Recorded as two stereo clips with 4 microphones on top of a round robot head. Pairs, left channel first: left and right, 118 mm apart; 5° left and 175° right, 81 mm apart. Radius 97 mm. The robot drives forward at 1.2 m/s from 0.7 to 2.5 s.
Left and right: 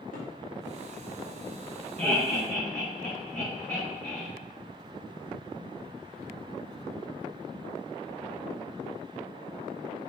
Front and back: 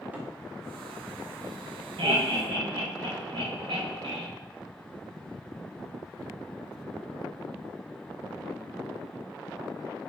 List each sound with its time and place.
0.1 s a cupboard door: 115° left, 1.9 m
2.0 s laughter: 170° left, 2.5 m